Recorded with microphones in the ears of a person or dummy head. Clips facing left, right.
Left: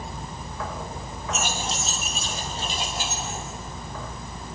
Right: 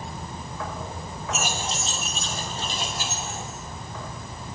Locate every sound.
1.3 s keys jangling: 5° right (ahead or behind), 1.5 m; by 3.5 s 20° left (ahead or behind), 3.5 m